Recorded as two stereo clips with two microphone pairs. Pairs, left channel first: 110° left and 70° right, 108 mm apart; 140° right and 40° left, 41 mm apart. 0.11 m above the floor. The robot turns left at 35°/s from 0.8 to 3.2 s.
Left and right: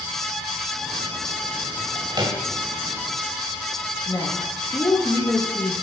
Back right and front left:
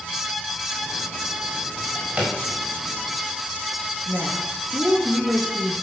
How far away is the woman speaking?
About 5 m.